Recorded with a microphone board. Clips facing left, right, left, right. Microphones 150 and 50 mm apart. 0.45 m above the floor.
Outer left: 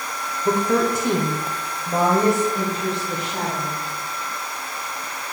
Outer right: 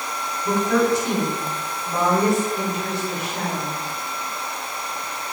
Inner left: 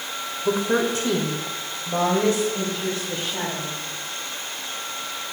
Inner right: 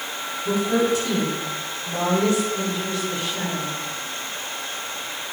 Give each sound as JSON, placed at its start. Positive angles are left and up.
{"t": 0.5, "sound": "a woman speaking", "side_deg": 50, "distance_m": 1.4}